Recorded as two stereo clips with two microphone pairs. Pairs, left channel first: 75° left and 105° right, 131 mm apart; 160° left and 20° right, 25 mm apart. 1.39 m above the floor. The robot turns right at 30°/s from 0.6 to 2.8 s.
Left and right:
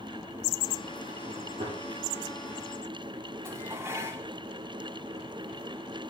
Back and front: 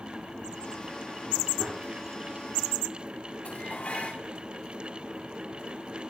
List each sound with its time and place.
1.6 s a gunshot: 60° right, 4.5 m; by 1.8 s 55° right, 4.5 m
3.5 s dishes clattering: 175° right, 2.5 m